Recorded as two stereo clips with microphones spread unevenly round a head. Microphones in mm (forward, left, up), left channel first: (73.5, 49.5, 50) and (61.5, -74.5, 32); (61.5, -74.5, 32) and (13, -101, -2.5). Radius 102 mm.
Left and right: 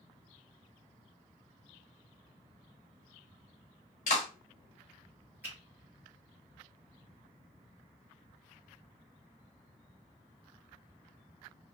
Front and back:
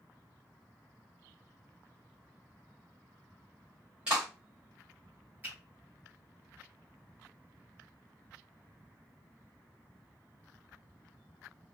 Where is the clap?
130° left, 0.9 m.